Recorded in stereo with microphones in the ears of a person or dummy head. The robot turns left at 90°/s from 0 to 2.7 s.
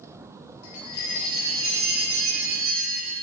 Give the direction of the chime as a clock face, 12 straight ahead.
10 o'clock.